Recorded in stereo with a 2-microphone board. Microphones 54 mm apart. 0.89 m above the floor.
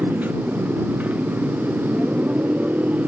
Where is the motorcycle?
30° right (ahead or behind).